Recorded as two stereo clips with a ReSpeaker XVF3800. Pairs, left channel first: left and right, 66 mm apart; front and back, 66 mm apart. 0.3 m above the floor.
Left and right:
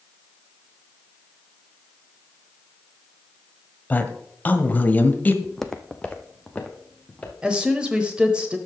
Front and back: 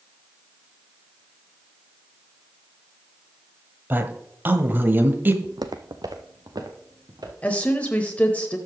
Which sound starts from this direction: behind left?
A woman speaking, at 3.9 s.